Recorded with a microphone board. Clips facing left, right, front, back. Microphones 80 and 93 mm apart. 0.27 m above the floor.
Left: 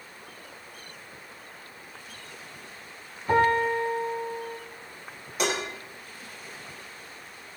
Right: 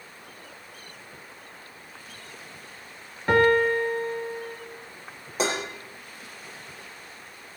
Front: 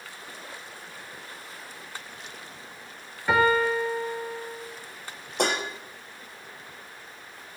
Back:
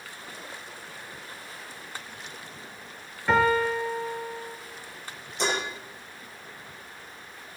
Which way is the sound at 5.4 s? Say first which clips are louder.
Right 1 dB, front 2 dB; 30° right.